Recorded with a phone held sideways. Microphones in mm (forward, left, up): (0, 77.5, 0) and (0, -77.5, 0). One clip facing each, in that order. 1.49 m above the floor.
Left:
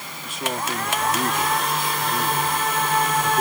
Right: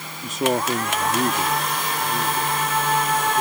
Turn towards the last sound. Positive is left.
turn(degrees=15)  # may be behind; listen again after turning